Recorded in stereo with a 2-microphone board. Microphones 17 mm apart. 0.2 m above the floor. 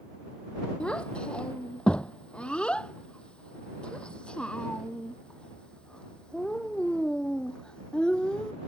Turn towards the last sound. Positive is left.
turn(degrees=60)  # may be behind; listen again after turning